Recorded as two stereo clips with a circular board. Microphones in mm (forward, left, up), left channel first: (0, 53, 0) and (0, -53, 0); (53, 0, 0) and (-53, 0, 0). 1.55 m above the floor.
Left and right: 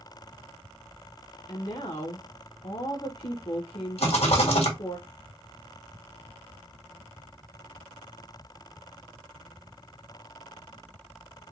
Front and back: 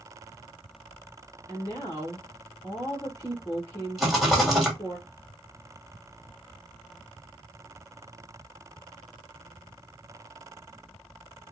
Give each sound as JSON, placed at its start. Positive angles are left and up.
{"t": 1.5, "sound": "a woman speaking", "azimuth_deg": 55, "distance_m": 1.5}
{"t": 4.0, "sound": "a rattle", "azimuth_deg": 95, "distance_m": 2.0}